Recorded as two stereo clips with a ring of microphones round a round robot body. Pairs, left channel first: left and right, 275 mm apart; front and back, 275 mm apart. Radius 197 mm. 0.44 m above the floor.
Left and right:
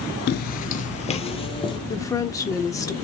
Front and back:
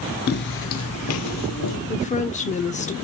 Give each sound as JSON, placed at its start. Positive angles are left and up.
{"t": 0.3, "sound": "footsteps", "azimuth_deg": 45, "distance_m": 0.5}
{"t": 1.9, "sound": "a woman speaking", "azimuth_deg": 25, "distance_m": 0.8}